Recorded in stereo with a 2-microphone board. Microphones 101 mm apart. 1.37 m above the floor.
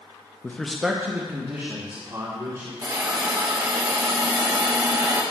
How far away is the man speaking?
About 0.6 m.